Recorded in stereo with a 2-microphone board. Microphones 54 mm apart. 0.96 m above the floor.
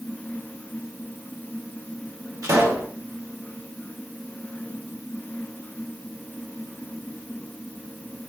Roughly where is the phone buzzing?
No phone buzzing in this recording.